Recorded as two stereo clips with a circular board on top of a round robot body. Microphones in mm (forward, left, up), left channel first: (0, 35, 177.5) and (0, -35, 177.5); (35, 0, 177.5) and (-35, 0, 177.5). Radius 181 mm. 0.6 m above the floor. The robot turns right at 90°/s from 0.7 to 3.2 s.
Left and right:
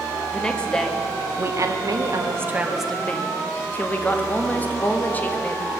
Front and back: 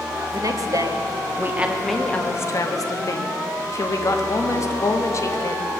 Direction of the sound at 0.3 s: 165° left.